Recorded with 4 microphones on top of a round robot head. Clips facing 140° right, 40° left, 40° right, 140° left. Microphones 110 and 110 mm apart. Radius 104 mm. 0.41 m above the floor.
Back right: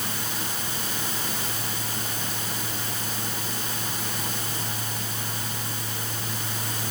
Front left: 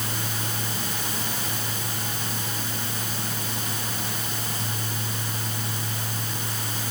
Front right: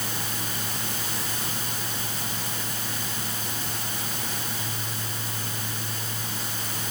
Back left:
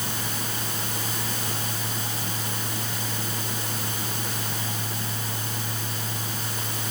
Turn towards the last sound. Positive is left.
No sound to turn to.